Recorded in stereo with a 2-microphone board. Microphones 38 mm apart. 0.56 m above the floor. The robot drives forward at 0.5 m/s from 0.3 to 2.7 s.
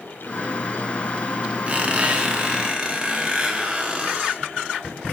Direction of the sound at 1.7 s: 35° right (ahead or behind).